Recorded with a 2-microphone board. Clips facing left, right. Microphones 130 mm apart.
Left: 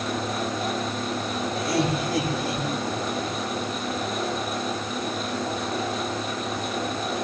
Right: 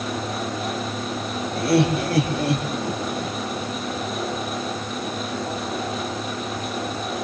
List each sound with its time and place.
1.6 s laughter: 65° right (ahead or behind), 7 m; by 3.4 s 70° right (ahead or behind), 8 m